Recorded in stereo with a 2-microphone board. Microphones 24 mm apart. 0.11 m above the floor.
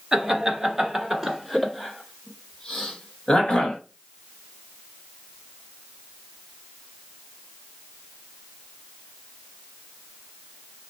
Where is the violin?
No violin in this recording.